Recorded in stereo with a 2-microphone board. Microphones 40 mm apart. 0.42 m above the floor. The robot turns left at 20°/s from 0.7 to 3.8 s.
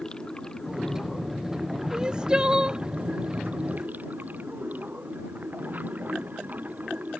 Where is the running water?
20° left; by 7.2 s 45° right.